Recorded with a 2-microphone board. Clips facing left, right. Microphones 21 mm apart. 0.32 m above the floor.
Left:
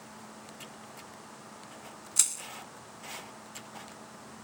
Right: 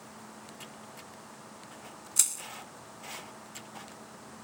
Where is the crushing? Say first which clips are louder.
Even; 10° left (ahead or behind).